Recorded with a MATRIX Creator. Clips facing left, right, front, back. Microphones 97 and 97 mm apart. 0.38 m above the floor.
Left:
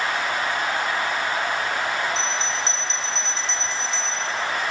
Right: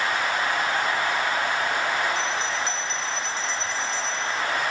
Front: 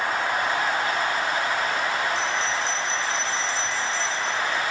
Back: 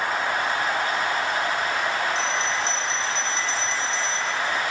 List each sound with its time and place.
2.1 s a bell: 115° right, 1.7 m